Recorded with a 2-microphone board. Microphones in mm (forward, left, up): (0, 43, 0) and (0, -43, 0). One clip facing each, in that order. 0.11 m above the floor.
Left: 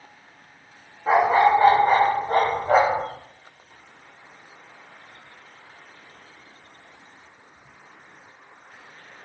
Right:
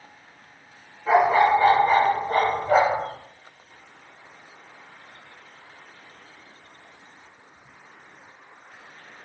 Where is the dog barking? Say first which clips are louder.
Left 1 dB; 40° left (ahead or behind), 5 m; by 3.0 s 60° left (ahead or behind), 6 m.